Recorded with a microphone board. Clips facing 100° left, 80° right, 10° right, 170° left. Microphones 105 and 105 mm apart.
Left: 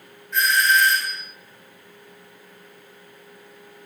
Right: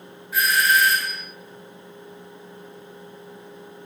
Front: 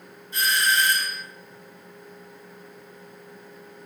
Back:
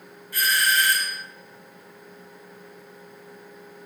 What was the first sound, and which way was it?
A doorbell, 5° right.